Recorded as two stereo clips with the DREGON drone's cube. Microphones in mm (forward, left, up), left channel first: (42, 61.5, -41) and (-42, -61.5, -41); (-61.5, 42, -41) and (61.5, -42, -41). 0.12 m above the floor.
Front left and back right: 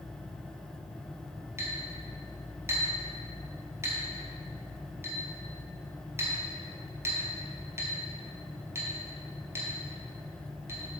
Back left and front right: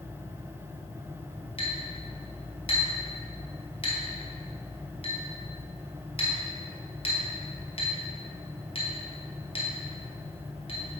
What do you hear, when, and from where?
1.6 s a clink: 170° left, 1.6 m